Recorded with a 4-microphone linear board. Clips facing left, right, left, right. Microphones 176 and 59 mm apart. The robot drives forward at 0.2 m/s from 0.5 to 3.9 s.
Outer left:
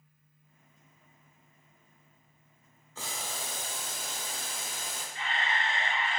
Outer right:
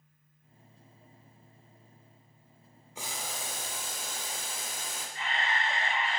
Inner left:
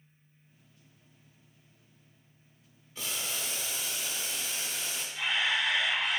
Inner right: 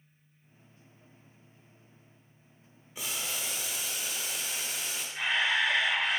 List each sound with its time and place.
3.0 s boiling: 15° right (ahead or behind), 0.6 m; by 5.0 s 10° right (ahead or behind), 0.8 m
5.2 s a camera shutter: 40° right (ahead or behind), 1.0 m